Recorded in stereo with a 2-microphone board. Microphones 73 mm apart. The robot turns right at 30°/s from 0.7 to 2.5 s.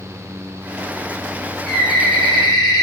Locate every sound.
1.6 s a bird: 75° left (ahead or behind), 1.5 m; by 2.8 s 80° left, 1.5 m